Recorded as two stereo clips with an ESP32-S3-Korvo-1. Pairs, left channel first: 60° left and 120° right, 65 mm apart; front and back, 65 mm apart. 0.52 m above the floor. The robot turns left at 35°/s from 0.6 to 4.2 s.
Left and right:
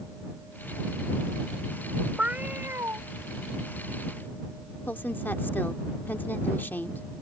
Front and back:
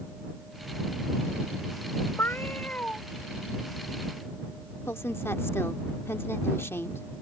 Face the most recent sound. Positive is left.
turn(degrees=20)